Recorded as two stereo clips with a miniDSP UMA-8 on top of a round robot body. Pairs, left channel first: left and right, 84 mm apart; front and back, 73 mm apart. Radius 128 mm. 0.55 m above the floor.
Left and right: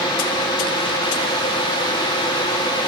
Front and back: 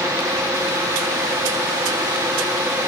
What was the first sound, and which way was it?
Only background noise.